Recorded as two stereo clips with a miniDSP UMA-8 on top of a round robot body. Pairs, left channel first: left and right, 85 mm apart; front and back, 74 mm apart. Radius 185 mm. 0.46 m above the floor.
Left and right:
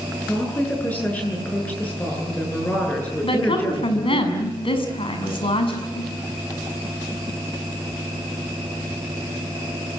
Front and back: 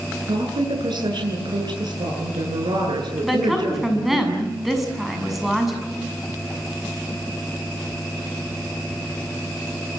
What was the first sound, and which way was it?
A woman speaking, 165° left.